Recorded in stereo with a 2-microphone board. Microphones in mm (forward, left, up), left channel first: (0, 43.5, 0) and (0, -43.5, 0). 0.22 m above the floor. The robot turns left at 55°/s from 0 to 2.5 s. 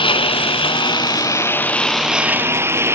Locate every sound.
0.0 s a lawn mower: 110° left; by 3.0 s 30° right